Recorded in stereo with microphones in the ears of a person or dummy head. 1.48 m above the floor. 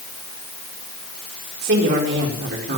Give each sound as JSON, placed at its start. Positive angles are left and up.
{"t": 1.6, "sound": "a woman speaking", "side_deg": -50, "distance_m": 5.0}